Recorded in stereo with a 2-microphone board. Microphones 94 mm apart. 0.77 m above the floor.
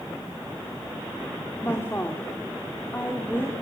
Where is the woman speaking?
25° left (ahead or behind), 2.5 m.